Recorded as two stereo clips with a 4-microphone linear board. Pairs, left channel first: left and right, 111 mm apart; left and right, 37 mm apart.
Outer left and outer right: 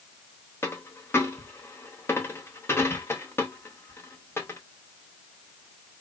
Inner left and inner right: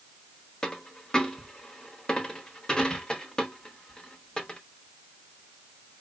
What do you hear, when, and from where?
0.6 s a dropped coin: 20° left (ahead or behind), 0.8 m